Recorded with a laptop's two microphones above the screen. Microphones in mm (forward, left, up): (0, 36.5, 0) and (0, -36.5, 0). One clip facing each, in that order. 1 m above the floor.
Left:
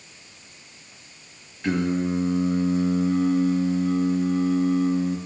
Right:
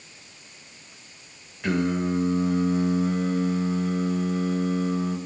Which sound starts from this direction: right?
Singing, at 1.6 s.